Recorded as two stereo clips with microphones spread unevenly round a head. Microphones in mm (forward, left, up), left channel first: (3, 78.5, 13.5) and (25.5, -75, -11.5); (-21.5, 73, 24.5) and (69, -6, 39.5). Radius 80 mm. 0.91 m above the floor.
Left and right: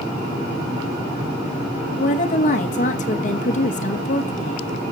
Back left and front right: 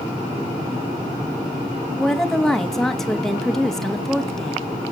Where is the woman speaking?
55° left, 1.1 m.